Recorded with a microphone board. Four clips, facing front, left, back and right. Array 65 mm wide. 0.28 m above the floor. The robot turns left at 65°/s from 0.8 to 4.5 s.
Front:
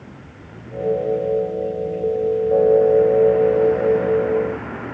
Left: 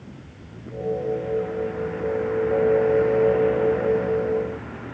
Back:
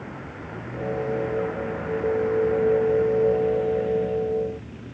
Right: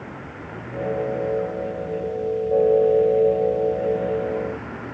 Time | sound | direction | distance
0.0 | a vehicle | 125° right | ?